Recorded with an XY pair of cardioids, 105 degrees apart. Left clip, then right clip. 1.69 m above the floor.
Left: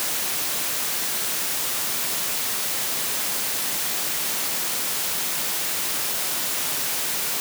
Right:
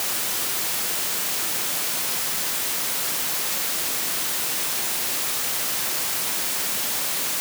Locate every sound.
Only background noise.